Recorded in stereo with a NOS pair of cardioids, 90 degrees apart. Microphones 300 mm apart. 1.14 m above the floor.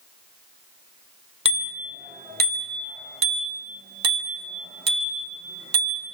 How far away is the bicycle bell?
About 3.5 m.